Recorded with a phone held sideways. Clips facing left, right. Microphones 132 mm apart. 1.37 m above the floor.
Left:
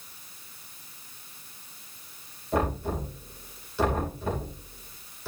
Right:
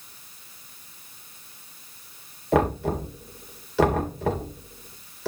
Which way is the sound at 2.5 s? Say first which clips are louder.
Right 6 dB; 75° right (ahead or behind).